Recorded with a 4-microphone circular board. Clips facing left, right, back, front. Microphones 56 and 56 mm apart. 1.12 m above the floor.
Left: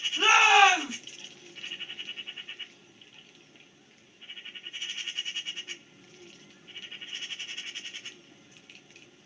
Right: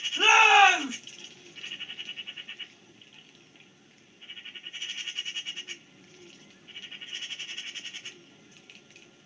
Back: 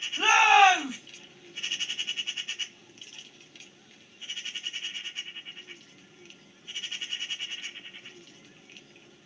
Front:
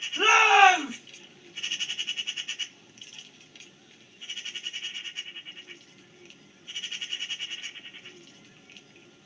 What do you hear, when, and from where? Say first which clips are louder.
0.2 s a shout: right 1 dB, front 1 dB; 25° right, 2.5 m